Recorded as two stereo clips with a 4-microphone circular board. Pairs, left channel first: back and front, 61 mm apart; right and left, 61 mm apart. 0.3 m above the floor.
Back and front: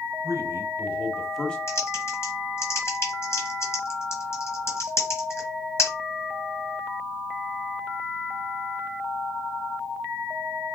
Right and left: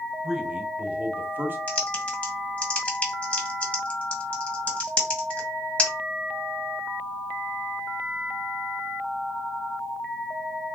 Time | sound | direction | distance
0.2 | a man speaking | 5° left | 1.5 m
1.7 | typing on a keyboard | 150° right | 1.9 m